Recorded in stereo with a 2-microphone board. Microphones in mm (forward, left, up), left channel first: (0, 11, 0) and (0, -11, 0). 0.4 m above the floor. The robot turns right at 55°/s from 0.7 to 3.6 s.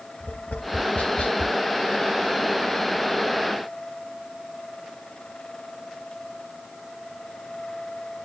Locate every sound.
0.2 s tapping: 80° left, 0.9 m; by 1.6 s 40° left (ahead or behind), 0.9 m